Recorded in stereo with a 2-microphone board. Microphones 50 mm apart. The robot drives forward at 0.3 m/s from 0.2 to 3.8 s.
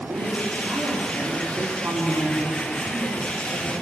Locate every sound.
0.1 s a woman speaking: 75° right (ahead or behind), 7 m; by 3.7 s 70° right (ahead or behind), 7 m